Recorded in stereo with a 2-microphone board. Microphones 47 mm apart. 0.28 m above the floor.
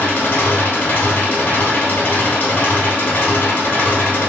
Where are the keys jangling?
No keys jangling in this recording.